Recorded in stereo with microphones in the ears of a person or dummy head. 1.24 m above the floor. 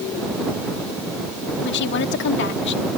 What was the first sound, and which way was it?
A woman speaking, 65° left (ahead or behind).